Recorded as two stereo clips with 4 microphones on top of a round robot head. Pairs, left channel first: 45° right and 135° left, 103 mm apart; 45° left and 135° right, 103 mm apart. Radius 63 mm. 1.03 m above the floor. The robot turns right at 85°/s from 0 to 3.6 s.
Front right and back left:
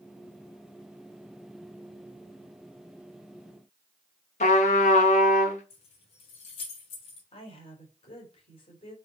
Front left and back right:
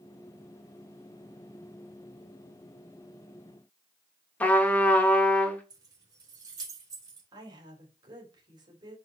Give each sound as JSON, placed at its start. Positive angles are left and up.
{"t": 4.4, "sound": "a trumpet", "azimuth_deg": -30, "distance_m": 1.1}
{"t": 5.7, "sound": "keys jangling", "azimuth_deg": -80, "distance_m": 2.5}
{"t": 7.3, "sound": "a woman speaking", "azimuth_deg": -85, "distance_m": 3.0}